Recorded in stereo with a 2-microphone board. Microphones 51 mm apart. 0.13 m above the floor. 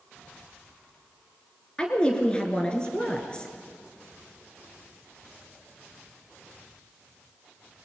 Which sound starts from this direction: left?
A woman speaking, at 1.8 s.